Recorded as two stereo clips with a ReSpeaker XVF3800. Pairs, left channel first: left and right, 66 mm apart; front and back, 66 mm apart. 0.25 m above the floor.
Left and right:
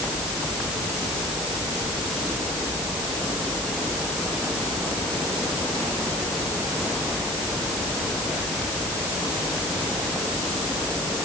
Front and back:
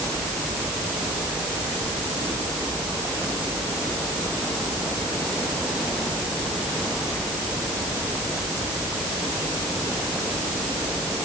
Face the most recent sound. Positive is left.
No sound to turn to.